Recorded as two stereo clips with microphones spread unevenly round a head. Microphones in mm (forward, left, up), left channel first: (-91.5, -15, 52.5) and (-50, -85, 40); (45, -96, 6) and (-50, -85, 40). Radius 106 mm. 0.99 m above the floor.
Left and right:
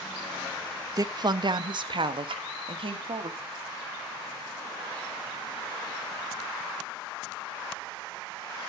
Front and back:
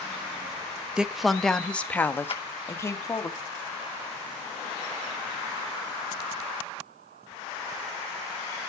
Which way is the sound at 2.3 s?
35° right.